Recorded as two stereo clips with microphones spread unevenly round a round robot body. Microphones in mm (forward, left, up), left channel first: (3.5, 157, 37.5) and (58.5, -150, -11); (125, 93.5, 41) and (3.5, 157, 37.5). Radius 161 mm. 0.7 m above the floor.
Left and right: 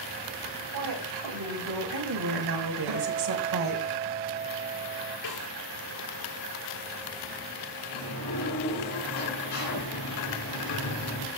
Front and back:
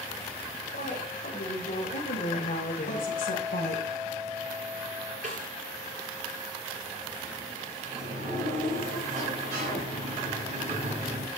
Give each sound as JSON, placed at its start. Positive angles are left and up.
{"t": 0.7, "sound": "a woman speaking", "azimuth_deg": -60, "distance_m": 4.0}
{"t": 2.9, "sound": "a guitar", "azimuth_deg": -85, "distance_m": 5.5}
{"t": 5.2, "sound": "a snare drum", "azimuth_deg": 135, "distance_m": 8.0}
{"t": 7.9, "sound": "a sliding door", "azimuth_deg": 140, "distance_m": 5.0}